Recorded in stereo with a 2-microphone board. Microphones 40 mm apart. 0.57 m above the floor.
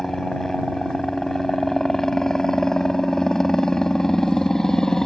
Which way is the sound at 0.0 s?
10° left (ahead or behind).